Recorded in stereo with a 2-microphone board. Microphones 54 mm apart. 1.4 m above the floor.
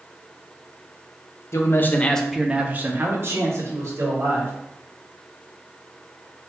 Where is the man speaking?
55° left (ahead or behind), 0.6 m; by 4.5 s 60° right (ahead or behind), 1.7 m.